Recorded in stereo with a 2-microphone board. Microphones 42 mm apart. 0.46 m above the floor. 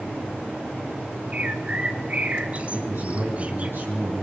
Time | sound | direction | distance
1.3 | a bird | 30° right (ahead or behind) | 1.8 m
2.7 | a man speaking | 55° right (ahead or behind) | 4.5 m